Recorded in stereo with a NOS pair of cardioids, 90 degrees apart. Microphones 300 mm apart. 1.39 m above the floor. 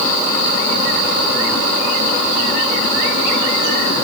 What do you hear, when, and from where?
Only background noise.